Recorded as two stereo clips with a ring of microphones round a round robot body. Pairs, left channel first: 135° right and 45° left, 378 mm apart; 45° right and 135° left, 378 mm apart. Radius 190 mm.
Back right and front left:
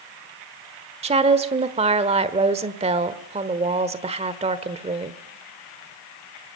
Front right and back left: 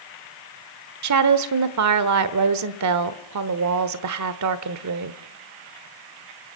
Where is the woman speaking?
115° left, 1.2 m.